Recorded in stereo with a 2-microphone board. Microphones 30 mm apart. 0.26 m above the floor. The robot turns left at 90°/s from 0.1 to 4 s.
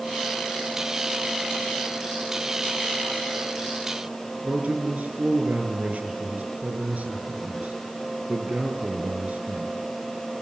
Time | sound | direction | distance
4.4 | a man speaking | 50° right (ahead or behind) | 6 m